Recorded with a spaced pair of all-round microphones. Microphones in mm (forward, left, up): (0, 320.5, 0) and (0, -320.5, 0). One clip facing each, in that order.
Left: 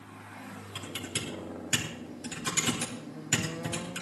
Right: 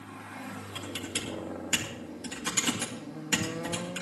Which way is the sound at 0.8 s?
10° left (ahead or behind).